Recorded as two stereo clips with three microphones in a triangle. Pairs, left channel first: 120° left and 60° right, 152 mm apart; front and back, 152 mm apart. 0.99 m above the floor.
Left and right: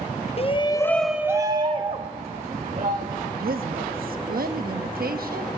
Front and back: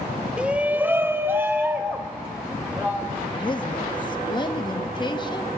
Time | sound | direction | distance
0.4 | a shout | 100° left | 0.7 m
3.3 | a woman speaking | 60° right | 1.1 m